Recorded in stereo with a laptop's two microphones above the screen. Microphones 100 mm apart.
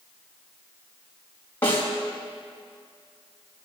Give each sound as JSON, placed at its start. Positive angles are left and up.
{"t": 1.6, "sound": "a snare drum", "side_deg": 25, "distance_m": 4.5}